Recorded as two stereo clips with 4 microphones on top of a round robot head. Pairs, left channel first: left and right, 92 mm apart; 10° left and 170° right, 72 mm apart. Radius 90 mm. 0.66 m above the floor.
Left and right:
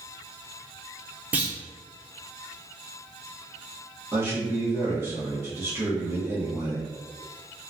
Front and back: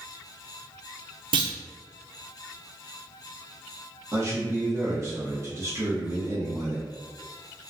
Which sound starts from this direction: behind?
A clunk, at 1.3 s.